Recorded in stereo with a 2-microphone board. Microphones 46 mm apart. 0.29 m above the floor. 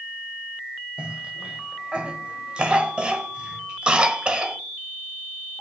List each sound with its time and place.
1.0 s a cough: 25° right (ahead or behind), 1.0 m